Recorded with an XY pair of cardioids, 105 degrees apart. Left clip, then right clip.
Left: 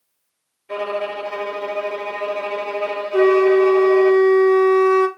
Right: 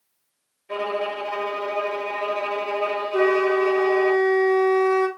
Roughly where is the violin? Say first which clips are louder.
Left 2 dB; ahead.